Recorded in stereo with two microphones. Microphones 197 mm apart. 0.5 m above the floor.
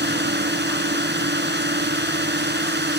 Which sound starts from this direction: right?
A drone, at 0.0 s.